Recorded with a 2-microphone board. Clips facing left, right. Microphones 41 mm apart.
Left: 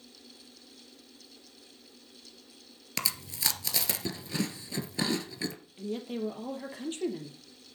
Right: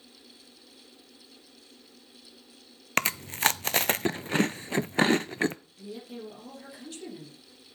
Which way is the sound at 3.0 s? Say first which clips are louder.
Right 9 dB; 55° right (ahead or behind).